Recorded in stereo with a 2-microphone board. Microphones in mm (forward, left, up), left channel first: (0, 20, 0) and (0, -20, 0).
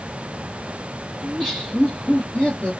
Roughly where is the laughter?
Centre.